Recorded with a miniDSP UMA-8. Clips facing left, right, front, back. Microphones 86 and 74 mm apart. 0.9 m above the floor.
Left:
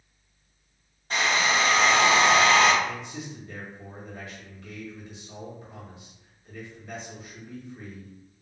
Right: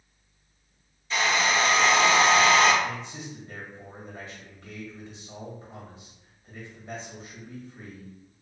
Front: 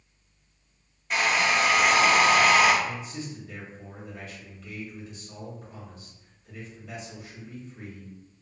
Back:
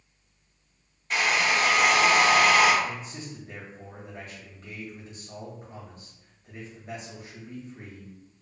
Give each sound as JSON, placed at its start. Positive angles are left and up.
{"t": 1.1, "sound": "a hair dryer", "azimuth_deg": 85, "distance_m": 1.2}
{"t": 2.8, "sound": "a man speaking", "azimuth_deg": -140, "distance_m": 1.4}